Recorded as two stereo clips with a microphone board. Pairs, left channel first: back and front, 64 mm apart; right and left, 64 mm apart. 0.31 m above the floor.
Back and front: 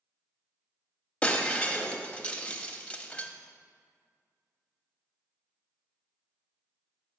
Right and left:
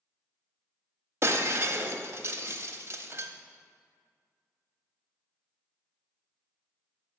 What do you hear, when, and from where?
1.2 s breaking glass: 115° left, 0.7 m